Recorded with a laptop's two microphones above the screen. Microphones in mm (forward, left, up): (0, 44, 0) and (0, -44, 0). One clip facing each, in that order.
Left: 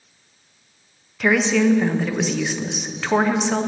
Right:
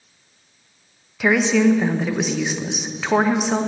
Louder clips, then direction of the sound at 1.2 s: Right 1 dB; 5° right (ahead or behind).